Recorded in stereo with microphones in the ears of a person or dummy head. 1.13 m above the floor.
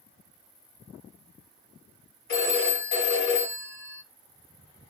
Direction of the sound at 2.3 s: 45° left (ahead or behind).